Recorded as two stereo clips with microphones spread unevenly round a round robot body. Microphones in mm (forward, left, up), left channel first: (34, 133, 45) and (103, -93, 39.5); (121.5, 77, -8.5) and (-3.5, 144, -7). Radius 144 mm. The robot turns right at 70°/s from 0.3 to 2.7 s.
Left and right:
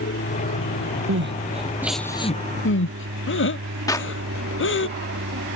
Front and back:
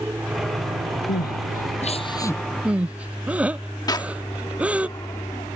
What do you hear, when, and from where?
0.0 s an aircraft: 75° left; by 5.5 s 100° right
1.1 s crying: 40° right; by 4.9 s 70° left
3.9 s a clap: 30° left